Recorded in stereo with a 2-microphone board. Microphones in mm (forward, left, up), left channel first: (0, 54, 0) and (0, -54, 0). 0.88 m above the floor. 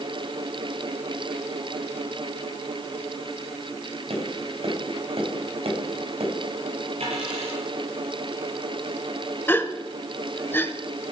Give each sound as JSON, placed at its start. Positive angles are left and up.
{"t": 4.1, "sound": "tapping", "side_deg": -65, "distance_m": 4.5}
{"t": 7.0, "sound": "a dropped coin", "side_deg": -65, "distance_m": 7.5}
{"t": 9.5, "sound": "a gasp", "side_deg": 20, "distance_m": 1.2}